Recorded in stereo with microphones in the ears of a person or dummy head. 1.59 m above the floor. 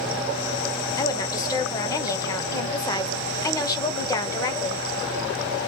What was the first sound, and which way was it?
A woman speaking, 20° left (ahead or behind).